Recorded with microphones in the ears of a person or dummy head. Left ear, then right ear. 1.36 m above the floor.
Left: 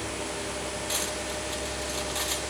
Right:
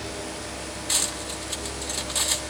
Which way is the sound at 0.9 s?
10° right (ahead or behind).